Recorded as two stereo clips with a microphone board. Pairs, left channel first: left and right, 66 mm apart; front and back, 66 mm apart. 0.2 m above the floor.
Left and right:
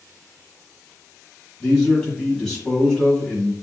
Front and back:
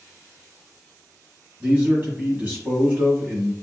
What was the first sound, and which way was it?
A man speaking, 170° left.